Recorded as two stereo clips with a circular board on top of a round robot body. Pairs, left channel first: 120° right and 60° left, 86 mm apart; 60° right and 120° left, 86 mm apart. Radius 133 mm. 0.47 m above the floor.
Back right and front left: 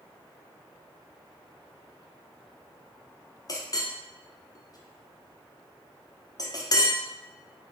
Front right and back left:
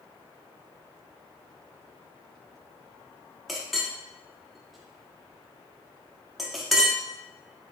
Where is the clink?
150° right, 0.9 m.